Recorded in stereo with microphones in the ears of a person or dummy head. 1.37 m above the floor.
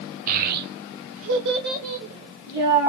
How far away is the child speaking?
About 1.0 m.